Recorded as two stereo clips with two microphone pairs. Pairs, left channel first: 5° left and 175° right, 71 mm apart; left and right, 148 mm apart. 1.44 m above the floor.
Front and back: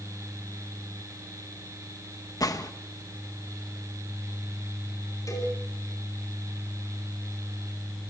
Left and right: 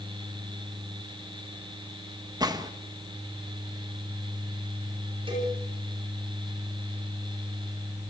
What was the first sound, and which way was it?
A gunshot, 25° right.